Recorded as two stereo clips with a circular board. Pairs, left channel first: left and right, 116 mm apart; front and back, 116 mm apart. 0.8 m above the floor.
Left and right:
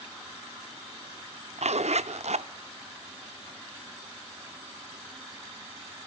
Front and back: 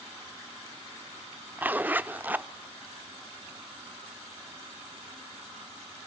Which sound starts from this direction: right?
A zipper, at 1.6 s.